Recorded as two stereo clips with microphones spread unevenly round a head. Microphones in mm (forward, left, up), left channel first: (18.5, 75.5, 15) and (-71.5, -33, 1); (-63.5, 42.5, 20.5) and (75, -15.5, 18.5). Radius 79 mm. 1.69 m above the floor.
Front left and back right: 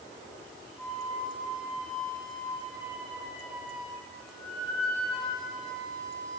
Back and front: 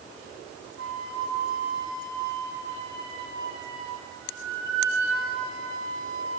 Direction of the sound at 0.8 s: 35° right.